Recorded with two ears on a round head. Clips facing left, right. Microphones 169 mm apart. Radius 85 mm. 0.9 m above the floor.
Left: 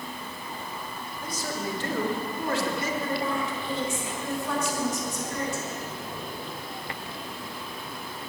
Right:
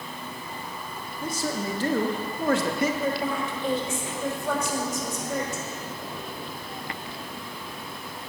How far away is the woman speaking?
About 3.5 m.